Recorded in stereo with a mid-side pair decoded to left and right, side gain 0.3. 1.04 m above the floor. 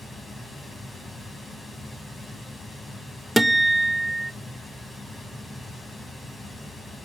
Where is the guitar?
10° right, 0.7 m.